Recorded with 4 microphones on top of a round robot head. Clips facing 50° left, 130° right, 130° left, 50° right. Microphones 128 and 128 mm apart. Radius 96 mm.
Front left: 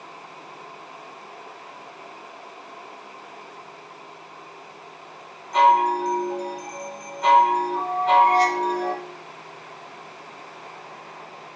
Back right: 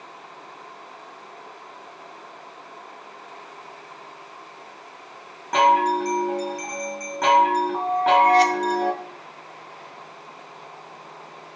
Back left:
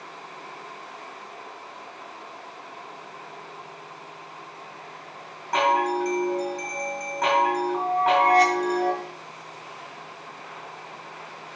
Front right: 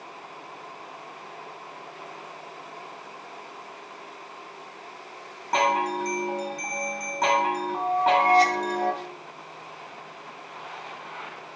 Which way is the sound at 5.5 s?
110° right.